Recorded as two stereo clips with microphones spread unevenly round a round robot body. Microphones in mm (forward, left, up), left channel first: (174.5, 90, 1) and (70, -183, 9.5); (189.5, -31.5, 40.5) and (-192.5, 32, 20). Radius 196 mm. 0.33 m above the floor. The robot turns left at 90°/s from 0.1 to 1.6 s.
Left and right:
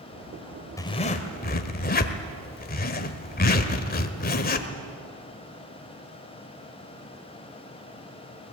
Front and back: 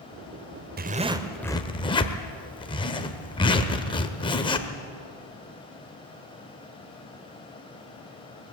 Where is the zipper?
140° left, 1.3 m; by 4.7 s 65° left, 1.3 m.